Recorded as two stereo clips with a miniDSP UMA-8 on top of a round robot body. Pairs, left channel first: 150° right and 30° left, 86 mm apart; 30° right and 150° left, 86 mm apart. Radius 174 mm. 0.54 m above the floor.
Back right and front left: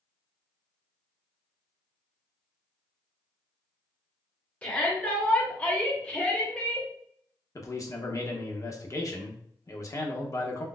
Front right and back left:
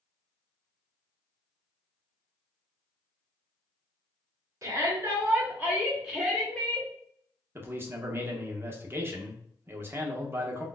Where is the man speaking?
165° right, 1.0 m.